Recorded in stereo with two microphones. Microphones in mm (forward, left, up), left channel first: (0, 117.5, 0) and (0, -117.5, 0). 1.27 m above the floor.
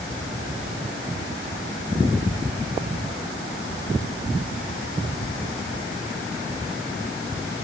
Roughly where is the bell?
No bell in this recording.